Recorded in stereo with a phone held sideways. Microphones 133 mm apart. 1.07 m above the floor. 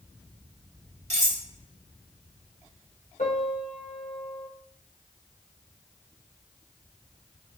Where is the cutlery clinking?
60° right (ahead or behind), 2.5 m.